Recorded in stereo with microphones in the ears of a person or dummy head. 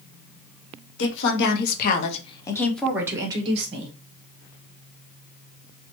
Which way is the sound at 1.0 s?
80° left.